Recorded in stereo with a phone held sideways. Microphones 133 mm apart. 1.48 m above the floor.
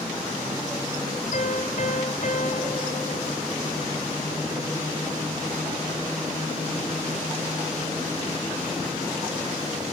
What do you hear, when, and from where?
1.3 s a piano: 60° left (ahead or behind), 2.5 m